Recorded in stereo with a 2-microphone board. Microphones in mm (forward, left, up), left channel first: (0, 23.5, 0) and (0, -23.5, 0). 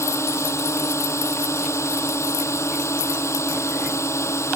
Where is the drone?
65° left (ahead or behind).